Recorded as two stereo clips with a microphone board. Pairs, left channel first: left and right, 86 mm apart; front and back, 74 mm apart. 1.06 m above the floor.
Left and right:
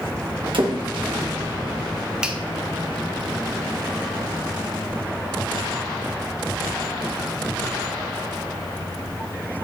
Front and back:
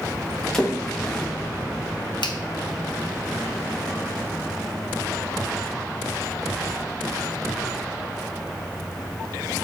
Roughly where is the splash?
Right.